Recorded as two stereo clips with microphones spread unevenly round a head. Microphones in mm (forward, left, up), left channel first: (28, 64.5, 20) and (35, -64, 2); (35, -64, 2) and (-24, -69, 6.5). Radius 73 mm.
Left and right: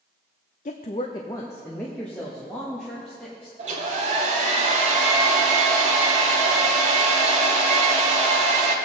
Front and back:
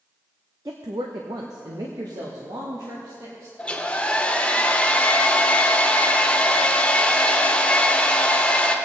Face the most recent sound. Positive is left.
turn(degrees=-65)